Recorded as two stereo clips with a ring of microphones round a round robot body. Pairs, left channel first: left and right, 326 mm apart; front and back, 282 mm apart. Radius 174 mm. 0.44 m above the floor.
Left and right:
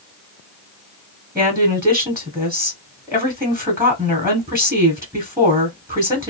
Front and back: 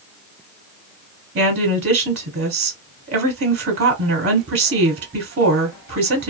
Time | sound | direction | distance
1.4 | a woman speaking | 170° right | 1.3 m